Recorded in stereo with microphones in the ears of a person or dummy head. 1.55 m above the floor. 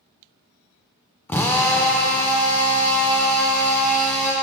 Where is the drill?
10° left (ahead or behind), 0.5 m.